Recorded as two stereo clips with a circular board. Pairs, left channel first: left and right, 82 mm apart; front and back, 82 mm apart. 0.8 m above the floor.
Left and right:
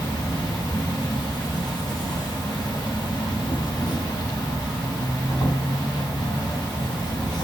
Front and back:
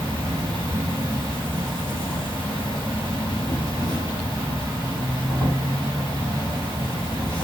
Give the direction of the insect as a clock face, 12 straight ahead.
8 o'clock.